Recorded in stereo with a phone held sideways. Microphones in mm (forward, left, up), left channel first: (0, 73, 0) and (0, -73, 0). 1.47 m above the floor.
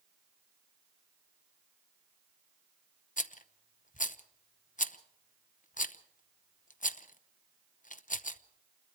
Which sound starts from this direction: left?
A rattle, at 3.2 s.